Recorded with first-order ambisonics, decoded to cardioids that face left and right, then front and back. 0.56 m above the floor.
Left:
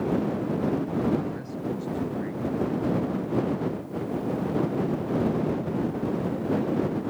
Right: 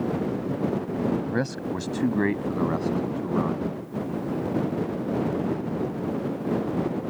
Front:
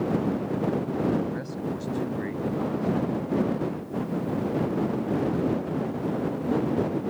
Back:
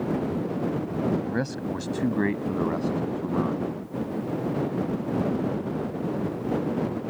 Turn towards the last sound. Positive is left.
turn(degrees=-125)